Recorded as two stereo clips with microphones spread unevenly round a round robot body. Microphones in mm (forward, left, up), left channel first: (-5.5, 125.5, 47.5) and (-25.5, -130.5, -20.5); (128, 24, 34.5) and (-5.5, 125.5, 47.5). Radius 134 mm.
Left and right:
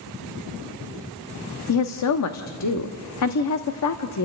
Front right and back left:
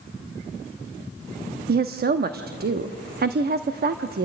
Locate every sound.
1.7 s a woman speaking: 115° left, 1.2 m